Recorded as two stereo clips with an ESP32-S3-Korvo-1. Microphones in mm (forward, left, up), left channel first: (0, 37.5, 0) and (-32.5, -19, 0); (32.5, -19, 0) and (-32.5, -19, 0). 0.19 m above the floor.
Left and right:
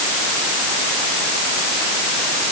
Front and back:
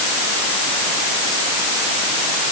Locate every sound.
Only background noise.